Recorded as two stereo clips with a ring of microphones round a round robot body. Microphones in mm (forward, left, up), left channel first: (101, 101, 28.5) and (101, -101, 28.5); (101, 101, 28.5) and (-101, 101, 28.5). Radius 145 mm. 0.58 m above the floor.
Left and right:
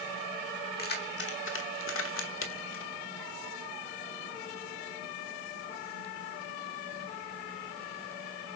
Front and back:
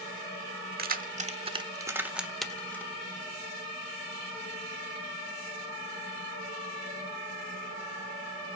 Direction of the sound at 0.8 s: 140° left.